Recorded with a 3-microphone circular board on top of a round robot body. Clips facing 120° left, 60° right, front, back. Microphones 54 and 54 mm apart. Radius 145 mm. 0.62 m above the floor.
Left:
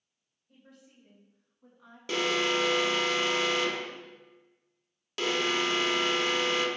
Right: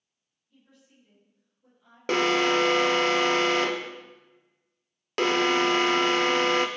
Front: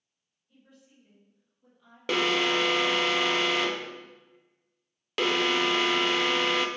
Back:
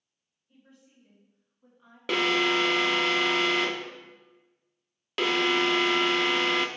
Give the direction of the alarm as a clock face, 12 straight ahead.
3 o'clock.